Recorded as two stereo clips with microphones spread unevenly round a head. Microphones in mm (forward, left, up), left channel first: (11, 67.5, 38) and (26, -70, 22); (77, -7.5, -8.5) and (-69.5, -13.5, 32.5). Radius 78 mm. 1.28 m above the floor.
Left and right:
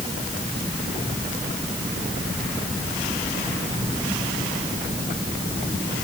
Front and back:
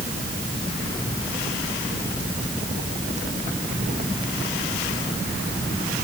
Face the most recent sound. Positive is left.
No sound to turn to.